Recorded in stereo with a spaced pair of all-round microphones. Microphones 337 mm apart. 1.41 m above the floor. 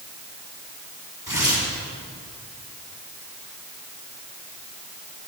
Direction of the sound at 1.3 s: 75° left (ahead or behind).